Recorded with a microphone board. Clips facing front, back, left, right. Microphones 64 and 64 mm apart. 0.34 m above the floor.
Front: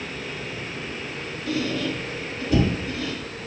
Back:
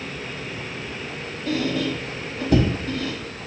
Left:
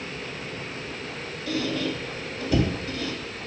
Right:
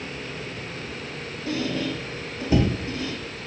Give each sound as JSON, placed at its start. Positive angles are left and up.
{"t": 1.5, "sound": "a squeak", "azimuth_deg": -150, "distance_m": 0.7}